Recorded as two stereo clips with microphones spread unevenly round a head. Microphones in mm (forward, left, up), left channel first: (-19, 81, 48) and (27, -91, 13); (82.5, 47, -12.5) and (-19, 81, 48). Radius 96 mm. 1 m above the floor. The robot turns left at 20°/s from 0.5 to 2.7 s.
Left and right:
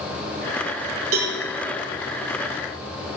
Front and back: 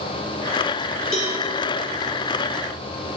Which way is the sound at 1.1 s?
75° right.